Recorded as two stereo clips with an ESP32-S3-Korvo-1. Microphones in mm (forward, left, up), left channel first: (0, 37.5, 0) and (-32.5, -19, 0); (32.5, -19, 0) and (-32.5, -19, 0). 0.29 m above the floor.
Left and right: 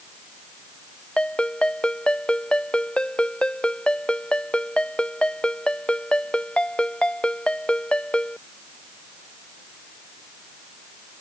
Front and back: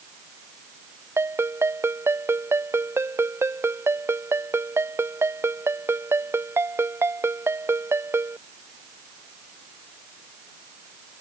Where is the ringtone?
135° left.